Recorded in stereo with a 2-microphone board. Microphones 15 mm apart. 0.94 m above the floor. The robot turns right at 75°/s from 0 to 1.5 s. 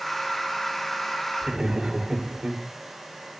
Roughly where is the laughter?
Right.